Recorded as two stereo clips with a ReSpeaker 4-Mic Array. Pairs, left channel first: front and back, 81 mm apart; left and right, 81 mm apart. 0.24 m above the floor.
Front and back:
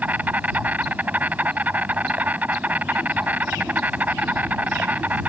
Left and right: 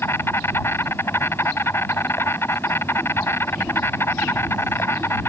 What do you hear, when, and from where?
0.0 s an insect: 125° left